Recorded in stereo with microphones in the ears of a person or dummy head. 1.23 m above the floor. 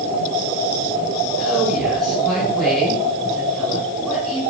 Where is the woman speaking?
5° left (ahead or behind), 5 m.